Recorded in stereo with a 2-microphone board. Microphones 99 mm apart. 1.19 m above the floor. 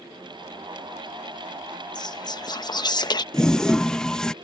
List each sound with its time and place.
1.9 s whispering: 50° left (ahead or behind)
3.3 s a toilet flushing: 10° left (ahead or behind)